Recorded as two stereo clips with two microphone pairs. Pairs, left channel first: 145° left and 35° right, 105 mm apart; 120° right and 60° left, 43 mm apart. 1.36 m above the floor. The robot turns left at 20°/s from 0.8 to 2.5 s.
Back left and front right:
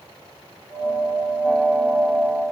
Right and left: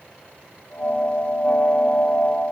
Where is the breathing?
No breathing in this recording.